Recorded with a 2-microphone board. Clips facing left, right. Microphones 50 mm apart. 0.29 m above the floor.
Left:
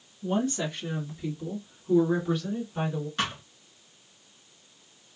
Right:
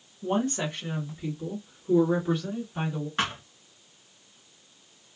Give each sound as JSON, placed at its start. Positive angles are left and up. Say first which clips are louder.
{"t": 0.2, "sound": "a woman speaking", "louder": "right 1 dB", "side_deg": -40, "distance_m": 2.0}
{"t": 3.2, "sound": "a thud", "louder": "right 3 dB", "side_deg": -30, "distance_m": 1.8}